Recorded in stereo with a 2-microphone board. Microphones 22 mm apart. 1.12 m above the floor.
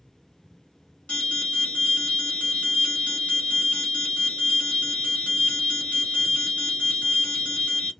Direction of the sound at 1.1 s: 65° left (ahead or behind).